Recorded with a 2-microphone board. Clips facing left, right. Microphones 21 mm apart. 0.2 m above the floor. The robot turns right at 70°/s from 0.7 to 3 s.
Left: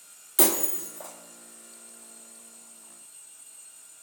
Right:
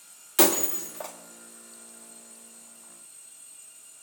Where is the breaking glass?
30° right (ahead or behind), 1.3 m; by 1.1 s 60° right (ahead or behind), 1.3 m.